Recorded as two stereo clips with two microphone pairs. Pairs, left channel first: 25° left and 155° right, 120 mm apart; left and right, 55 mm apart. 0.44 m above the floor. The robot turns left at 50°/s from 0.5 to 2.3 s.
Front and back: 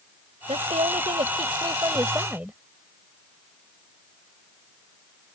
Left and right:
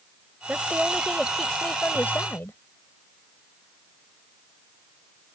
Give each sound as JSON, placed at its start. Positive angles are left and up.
{"t": 0.5, "sound": "a woman speaking", "azimuth_deg": -140}